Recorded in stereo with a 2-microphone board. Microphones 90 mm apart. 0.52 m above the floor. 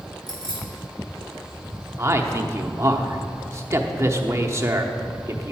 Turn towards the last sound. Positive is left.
turn(degrees=-30)  # may be behind; listen again after turning